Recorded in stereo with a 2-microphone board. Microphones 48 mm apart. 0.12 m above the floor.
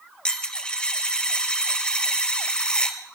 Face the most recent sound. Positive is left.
turn(degrees=20)  # may be behind; listen again after turning